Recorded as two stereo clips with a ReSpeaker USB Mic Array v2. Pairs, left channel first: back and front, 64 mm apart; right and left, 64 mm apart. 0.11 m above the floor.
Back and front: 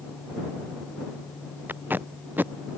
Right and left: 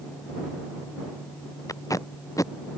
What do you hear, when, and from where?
1.7 s tape being pulled: 60° right